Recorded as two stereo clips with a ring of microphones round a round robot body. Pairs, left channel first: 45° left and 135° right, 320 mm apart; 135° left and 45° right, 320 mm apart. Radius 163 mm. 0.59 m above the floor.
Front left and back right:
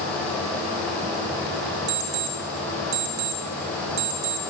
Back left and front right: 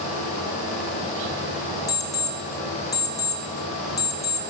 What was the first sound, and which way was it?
An alarm clock, 145° right.